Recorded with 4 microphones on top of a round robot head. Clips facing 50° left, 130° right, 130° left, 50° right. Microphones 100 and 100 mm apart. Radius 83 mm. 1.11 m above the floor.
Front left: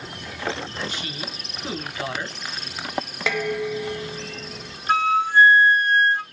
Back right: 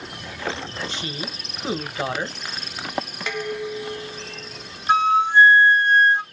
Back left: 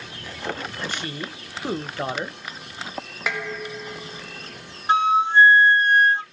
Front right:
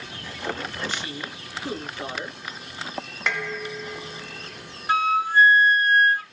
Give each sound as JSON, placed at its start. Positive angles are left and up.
{"t": 0.9, "sound": "a woman speaking", "azimuth_deg": 170, "distance_m": 0.9}
{"t": 3.3, "sound": "dishes clattering", "azimuth_deg": 45, "distance_m": 0.7}
{"t": 4.9, "sound": "a flute", "azimuth_deg": 175, "distance_m": 0.6}